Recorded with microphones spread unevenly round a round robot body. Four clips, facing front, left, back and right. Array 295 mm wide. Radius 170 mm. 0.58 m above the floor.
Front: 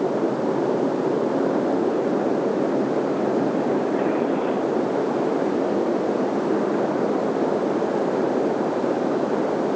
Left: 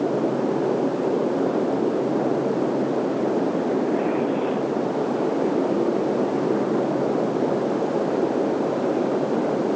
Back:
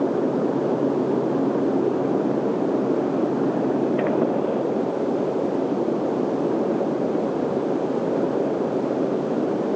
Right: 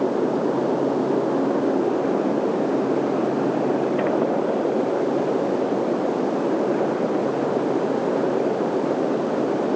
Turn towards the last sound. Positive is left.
No sound to turn to.